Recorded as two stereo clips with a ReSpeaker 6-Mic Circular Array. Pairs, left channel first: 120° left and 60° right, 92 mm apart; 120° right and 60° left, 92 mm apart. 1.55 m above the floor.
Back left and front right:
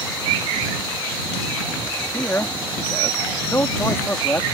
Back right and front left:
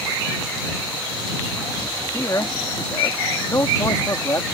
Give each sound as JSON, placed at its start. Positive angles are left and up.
{"t": 2.1, "sound": "a man speaking", "azimuth_deg": -175}